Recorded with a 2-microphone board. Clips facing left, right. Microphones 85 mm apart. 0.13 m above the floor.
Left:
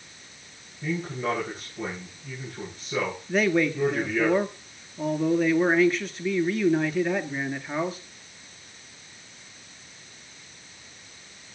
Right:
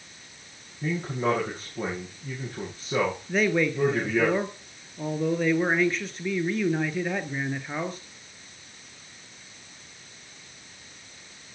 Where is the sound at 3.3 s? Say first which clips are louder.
Left 3 dB; centre (ahead or behind), 1.9 m.